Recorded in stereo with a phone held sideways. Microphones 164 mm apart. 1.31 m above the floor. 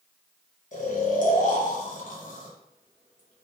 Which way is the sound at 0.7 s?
50° left (ahead or behind).